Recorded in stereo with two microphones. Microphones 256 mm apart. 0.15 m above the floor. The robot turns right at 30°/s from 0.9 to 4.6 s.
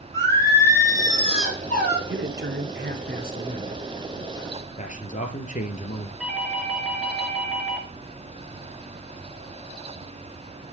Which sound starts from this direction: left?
A man speaking, at 4.8 s.